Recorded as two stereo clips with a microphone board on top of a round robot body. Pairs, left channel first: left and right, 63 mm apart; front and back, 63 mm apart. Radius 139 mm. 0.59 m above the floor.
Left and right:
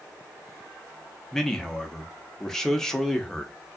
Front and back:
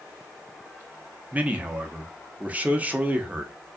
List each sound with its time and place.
1.3 s a man speaking: 160° left, 0.7 m